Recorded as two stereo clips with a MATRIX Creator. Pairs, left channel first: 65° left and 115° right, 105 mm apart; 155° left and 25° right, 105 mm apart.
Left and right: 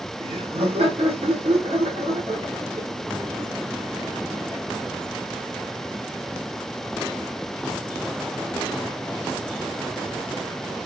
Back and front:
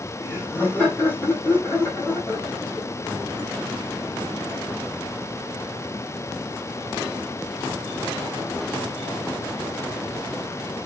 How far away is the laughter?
About 1.9 m.